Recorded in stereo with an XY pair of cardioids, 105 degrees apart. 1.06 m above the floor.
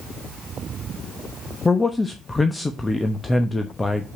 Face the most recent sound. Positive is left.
turn(degrees=20)